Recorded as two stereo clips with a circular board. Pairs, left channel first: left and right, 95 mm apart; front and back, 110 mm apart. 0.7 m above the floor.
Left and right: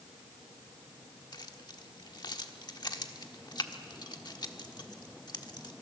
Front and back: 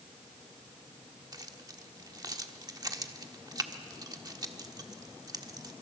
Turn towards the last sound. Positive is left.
turn(degrees=130)